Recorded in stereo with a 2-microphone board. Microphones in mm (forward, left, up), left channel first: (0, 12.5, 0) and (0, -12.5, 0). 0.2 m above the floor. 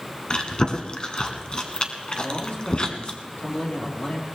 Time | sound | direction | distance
0.3 | chewing | 35° left (ahead or behind) | 1.3 m
2.2 | a man speaking | 60° left (ahead or behind) | 4 m